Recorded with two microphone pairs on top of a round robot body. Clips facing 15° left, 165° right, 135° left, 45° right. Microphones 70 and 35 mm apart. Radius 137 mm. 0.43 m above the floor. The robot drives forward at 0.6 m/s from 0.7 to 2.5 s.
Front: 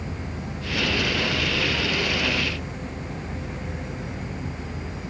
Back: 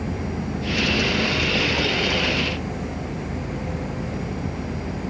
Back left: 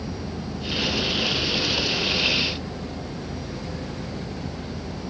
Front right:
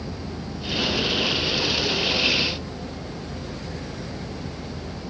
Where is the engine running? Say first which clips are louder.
Back 6 dB, back left 1 dB; 150° right.